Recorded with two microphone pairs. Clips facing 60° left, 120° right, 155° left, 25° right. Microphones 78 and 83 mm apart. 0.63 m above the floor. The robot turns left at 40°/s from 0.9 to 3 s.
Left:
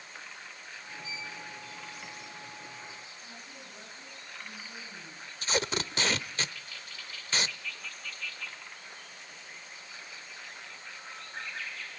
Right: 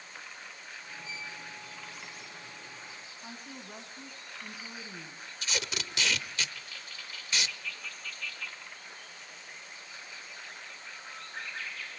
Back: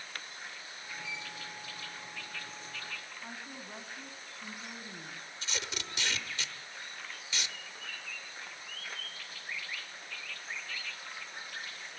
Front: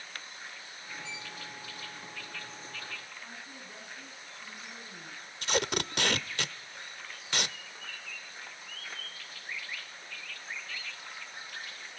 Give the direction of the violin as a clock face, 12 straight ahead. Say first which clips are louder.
Left 2 dB, back 1 dB; 3 o'clock.